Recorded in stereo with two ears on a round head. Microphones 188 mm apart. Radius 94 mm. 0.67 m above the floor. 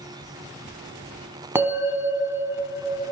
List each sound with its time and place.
1.6 s a bell: 10° right (ahead or behind), 1.0 m